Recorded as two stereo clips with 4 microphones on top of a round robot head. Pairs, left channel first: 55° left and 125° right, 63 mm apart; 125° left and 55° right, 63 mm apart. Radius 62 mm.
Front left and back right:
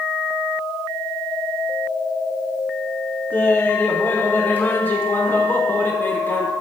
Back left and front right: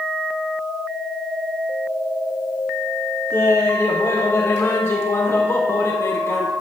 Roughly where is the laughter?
Left.